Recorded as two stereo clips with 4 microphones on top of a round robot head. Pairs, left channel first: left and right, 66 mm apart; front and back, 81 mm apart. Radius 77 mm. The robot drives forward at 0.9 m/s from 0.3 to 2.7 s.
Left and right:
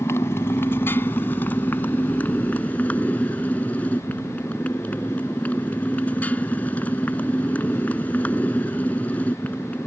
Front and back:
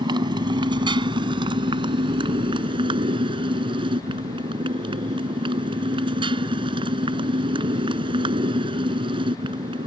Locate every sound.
0.0 s a motorcycle: 155° left; by 9.9 s 165° left